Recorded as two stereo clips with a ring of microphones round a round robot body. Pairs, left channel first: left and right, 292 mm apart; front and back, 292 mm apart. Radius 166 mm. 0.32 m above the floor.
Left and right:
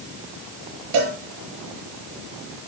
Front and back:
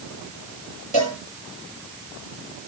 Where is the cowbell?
65° right, 7.5 m.